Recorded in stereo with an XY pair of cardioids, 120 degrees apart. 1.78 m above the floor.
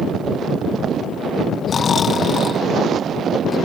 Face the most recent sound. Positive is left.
turn(degrees=35)